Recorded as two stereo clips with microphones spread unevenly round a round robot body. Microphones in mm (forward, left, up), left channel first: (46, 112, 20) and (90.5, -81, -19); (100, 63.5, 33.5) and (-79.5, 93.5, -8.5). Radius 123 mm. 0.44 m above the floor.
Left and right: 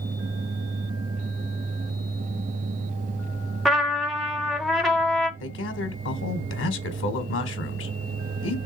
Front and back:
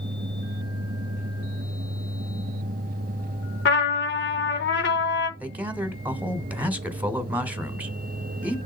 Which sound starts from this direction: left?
A man speaking, at 5.4 s.